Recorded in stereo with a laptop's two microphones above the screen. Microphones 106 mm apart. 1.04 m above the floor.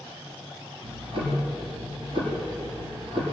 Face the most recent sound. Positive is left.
turn(degrees=-55)  # may be behind; listen again after turning